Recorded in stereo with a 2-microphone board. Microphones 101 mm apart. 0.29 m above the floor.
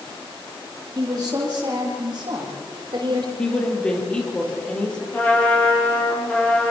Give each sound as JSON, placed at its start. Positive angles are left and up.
{"t": 0.9, "sound": "a woman speaking", "side_deg": -45, "distance_m": 8.5}
{"t": 3.4, "sound": "a woman speaking", "side_deg": 10, "distance_m": 7.5}
{"t": 5.1, "sound": "a trumpet", "side_deg": 15, "distance_m": 5.5}